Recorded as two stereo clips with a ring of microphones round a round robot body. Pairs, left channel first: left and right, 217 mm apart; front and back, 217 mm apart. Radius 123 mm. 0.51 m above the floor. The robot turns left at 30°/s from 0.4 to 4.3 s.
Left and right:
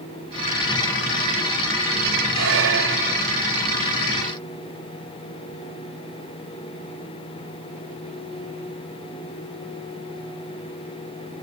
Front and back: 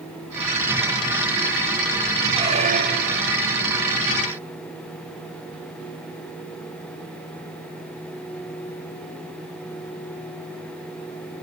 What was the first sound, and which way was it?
A squeak, 110° right.